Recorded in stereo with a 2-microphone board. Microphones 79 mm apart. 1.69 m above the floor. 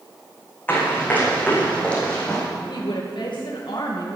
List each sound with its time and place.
0.7 s running footsteps: 25° left (ahead or behind), 7.5 m; by 2.4 s 10° left (ahead or behind), 5 m
2.7 s a woman speaking: 75° left (ahead or behind), 2 m